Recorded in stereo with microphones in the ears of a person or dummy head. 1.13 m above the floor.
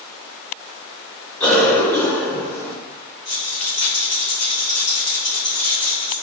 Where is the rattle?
35° left (ahead or behind), 1.1 m.